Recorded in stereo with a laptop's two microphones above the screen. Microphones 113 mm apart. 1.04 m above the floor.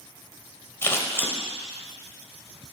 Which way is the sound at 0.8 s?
20° left (ahead or behind).